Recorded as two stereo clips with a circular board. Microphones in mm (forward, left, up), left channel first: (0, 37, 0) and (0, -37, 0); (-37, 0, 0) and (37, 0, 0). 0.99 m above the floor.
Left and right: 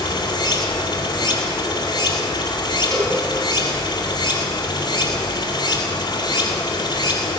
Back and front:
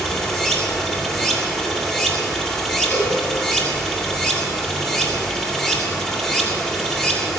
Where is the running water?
95° left, 2.5 m.